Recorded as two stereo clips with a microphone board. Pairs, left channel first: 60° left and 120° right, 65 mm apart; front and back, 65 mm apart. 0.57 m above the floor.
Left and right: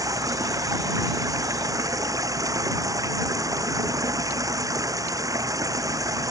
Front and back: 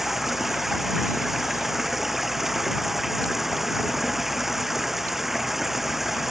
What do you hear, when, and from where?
0.0 s running water: 95° right